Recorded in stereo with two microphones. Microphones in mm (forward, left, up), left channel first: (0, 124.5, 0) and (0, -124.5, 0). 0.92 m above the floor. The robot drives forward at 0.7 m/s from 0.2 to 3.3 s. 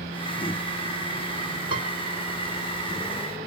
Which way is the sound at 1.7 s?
65° left (ahead or behind).